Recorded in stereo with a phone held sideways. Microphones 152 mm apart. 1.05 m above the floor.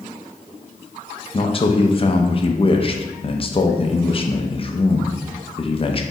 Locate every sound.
1.3 s a man speaking: 40° left (ahead or behind), 0.5 m